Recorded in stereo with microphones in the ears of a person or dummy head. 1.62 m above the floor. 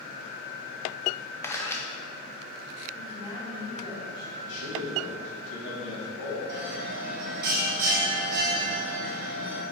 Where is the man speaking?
75° left (ahead or behind), 2.5 m.